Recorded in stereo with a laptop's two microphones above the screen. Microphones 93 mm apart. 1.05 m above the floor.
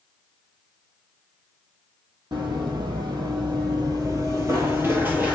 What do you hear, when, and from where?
2.3 s running footsteps: 55° right (ahead or behind), 1.9 m; by 5.4 s 15° right (ahead or behind), 1.3 m